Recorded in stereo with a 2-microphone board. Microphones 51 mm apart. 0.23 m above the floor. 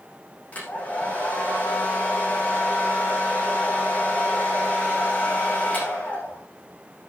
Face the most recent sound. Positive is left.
turn(degrees=30)  # may be behind; listen again after turning